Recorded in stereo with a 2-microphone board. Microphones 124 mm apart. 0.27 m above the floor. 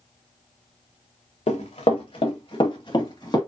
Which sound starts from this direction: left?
Running footsteps, at 1.5 s.